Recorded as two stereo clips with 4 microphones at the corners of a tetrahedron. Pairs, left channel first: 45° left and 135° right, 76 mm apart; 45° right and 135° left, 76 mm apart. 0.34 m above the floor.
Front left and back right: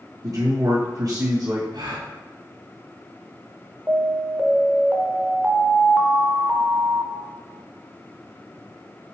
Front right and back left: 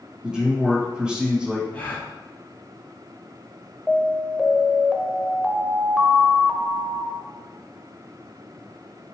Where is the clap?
I don't hear a clap.